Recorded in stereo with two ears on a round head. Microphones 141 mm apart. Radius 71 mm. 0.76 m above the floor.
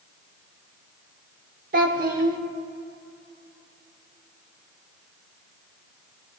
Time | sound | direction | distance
1.7 | a child speaking | 60° right (ahead or behind) | 1.1 m